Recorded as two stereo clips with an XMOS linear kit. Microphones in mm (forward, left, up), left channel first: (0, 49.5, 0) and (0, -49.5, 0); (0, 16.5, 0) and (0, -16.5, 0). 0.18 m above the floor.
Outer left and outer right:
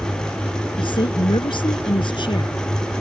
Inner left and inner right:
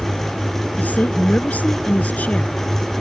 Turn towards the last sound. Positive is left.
turn(degrees=55)  # may be behind; listen again after turning